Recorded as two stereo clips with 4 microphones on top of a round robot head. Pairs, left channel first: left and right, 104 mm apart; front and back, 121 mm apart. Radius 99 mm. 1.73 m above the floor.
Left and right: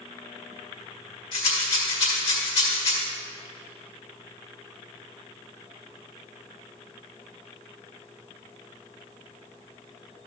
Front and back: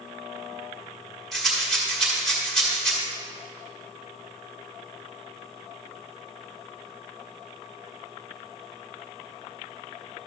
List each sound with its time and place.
1.3 s a rattle: 85° left, 1.6 m